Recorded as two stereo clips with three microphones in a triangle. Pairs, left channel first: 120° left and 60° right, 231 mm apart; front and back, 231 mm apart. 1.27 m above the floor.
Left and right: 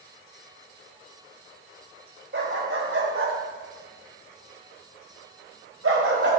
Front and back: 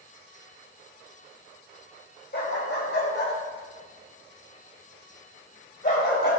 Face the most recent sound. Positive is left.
turn(degrees=-35)